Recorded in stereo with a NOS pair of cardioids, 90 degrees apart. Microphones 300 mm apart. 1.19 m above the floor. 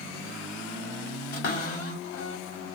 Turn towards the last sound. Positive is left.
turn(degrees=50)